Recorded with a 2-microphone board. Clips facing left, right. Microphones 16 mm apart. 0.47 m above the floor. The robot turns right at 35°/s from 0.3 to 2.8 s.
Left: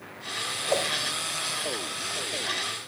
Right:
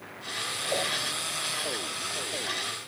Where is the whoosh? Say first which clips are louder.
Left 3 dB; 60° left (ahead or behind), 1.2 m.